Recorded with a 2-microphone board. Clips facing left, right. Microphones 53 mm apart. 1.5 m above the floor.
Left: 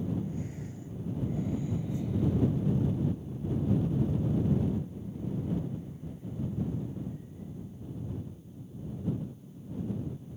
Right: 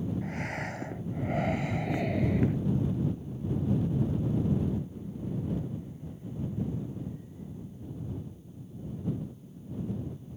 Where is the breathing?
70° right (ahead or behind).